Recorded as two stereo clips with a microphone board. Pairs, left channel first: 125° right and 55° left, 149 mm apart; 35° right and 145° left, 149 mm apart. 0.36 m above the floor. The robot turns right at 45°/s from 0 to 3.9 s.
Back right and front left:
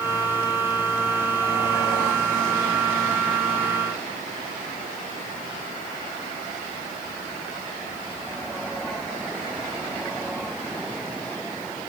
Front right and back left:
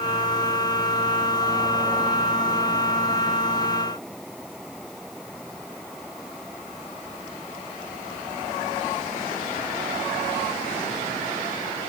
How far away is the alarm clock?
I don't hear an alarm clock.